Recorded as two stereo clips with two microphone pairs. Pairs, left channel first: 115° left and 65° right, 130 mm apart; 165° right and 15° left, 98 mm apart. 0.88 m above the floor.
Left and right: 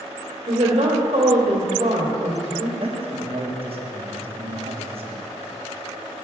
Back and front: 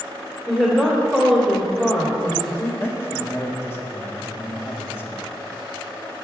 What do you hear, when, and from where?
0.5 s a woman speaking: 80° right, 2 m
2.8 s a man speaking: 100° right, 1.1 m